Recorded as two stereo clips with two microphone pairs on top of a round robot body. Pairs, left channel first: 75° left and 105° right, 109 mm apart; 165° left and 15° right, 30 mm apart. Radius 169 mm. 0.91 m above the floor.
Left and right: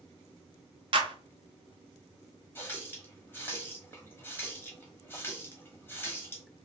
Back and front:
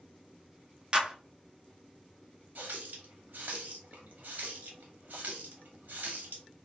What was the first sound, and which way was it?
A clap, 70° right.